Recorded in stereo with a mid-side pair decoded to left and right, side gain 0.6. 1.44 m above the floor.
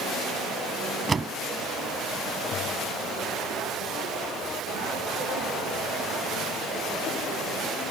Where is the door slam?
25° right.